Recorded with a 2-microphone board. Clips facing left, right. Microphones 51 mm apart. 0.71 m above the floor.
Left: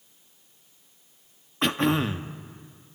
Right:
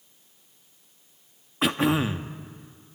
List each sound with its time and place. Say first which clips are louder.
1.6 s throat clearing: right 1 dB; centre (ahead or behind), 0.8 m